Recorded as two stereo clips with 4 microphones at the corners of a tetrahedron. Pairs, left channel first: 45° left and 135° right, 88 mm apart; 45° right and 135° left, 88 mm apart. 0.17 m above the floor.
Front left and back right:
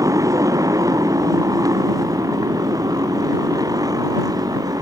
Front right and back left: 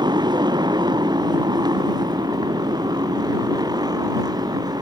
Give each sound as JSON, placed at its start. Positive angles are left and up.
{"t": 0.0, "sound": "a motorcycle", "azimuth_deg": 170}